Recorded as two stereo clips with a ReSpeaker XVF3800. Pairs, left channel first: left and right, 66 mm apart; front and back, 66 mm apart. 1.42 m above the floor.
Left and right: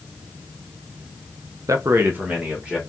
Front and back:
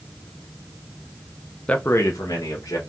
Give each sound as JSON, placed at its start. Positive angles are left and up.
{"t": 1.7, "sound": "a man speaking", "azimuth_deg": -70, "distance_m": 0.6}